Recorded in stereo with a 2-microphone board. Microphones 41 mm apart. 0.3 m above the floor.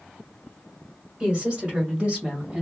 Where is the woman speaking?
25° right (ahead or behind), 1.6 m; by 2.6 s 30° right (ahead or behind), 1.5 m.